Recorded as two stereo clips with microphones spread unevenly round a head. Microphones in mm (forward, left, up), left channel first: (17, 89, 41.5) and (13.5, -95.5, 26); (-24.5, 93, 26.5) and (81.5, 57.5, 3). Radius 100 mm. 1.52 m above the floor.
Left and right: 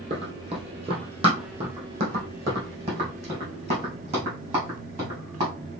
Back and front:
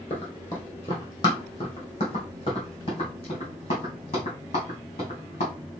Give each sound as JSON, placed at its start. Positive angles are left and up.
{"t": 0.1, "sound": "running footsteps", "azimuth_deg": -150, "distance_m": 2.0}